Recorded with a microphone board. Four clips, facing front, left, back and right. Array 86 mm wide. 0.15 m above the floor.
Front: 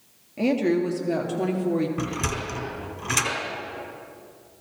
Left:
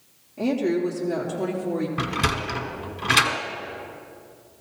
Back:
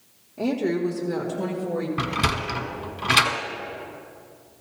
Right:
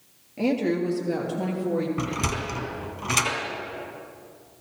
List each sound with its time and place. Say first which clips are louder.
0.4 s a woman speaking: left 1 dB, front 2 dB; 25° right, 2.5 m; by 1.9 s 10° right, 3 m
2.0 s a sliding door: left 3 dB, back 3 dB; 150° left, 1.3 m